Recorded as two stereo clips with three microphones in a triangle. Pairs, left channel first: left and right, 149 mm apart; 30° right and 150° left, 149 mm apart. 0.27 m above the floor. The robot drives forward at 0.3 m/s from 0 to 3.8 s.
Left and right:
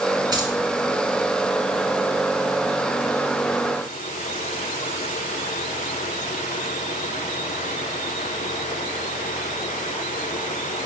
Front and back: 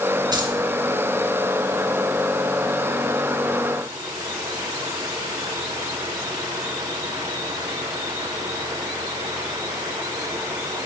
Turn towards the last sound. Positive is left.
turn(degrees=-160)